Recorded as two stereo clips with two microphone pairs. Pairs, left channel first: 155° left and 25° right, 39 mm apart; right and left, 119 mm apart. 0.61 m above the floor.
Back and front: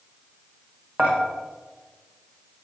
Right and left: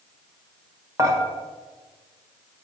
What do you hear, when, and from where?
1.0 s dishes clattering: 25° left, 1.4 m